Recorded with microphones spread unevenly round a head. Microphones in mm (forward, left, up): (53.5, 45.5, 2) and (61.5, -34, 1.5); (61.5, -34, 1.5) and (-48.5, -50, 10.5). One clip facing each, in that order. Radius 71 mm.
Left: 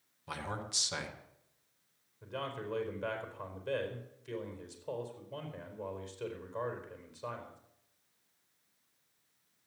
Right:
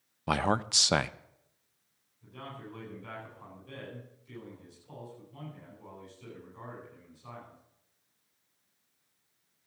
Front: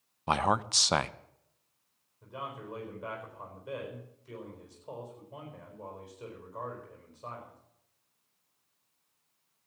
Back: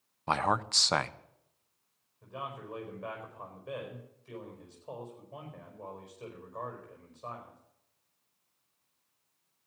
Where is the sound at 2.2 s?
90° left, 4.5 m.